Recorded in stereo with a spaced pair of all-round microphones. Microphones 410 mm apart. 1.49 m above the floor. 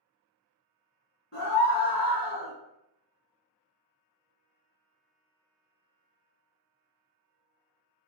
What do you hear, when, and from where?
1.3 s a scream: 30° left (ahead or behind), 1.4 m